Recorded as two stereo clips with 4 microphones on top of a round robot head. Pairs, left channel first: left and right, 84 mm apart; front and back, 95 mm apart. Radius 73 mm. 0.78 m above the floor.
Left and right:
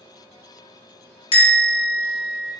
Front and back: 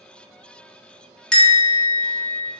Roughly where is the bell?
Left.